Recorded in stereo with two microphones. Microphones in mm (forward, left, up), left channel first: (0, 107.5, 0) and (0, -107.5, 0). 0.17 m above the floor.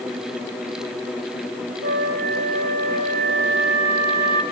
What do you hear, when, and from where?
1.8 s a flute: 65° right (ahead or behind), 6 m